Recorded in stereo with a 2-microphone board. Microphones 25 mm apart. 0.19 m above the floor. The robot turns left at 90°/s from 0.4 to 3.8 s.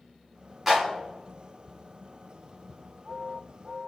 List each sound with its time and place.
0.7 s a clap: 5° right (ahead or behind), 1.8 m; by 0.9 s 15° right (ahead or behind), 1.8 m